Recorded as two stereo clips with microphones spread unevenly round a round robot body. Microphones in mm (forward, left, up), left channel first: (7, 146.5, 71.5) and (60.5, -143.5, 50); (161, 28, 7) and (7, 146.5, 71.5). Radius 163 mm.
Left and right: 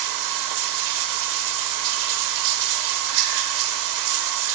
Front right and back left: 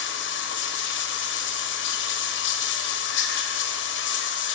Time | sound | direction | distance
0.0 | running water | 65° right | 1.0 m